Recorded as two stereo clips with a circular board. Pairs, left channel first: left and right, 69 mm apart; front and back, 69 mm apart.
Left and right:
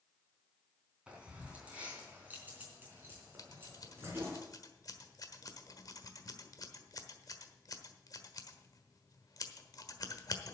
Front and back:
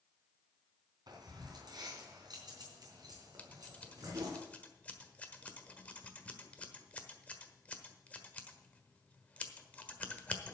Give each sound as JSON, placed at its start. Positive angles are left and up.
{"t": 1.1, "sound": "keys jangling", "azimuth_deg": -165, "distance_m": 3.5}
{"t": 3.4, "sound": "scissors", "azimuth_deg": 70, "distance_m": 1.3}